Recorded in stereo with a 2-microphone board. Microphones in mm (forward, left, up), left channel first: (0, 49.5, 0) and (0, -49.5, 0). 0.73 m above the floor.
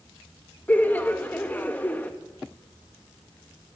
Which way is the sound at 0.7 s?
15° left (ahead or behind).